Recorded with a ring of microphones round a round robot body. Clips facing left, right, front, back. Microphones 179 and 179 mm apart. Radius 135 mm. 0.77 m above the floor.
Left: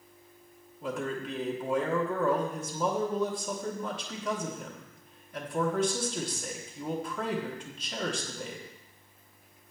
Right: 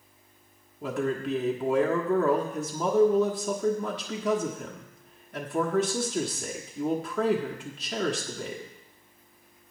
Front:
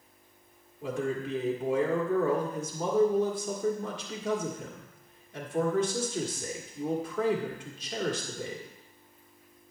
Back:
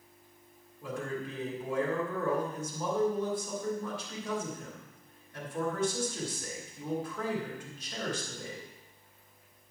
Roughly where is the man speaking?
Right.